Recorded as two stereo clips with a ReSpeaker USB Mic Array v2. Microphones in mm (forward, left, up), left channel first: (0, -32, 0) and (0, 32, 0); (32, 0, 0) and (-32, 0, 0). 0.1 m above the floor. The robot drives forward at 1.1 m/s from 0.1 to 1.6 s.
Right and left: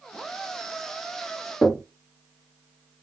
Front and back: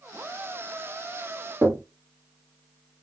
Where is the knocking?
160° right, 1.1 m.